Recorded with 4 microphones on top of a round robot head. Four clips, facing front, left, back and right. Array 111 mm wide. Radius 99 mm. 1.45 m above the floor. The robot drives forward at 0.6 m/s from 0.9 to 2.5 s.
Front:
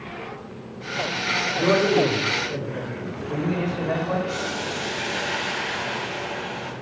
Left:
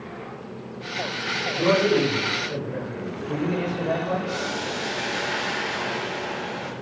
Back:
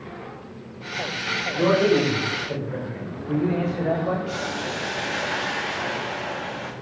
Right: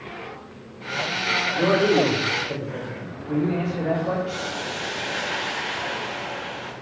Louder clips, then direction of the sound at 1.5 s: Right 1 dB, back 1 dB; 160° right.